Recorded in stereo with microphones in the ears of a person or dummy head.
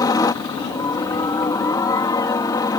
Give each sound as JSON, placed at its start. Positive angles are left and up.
{"t": 0.0, "sound": "a helicopter", "side_deg": 20}